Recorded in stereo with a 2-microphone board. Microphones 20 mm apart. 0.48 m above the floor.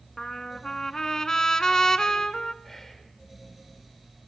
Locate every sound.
0.2 s a trumpet: 30° left (ahead or behind), 1.0 m
2.6 s whispering: 15° left (ahead or behind), 1.7 m